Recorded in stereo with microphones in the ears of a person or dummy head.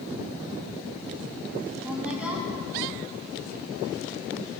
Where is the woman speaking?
10° right (ahead or behind), 3 m.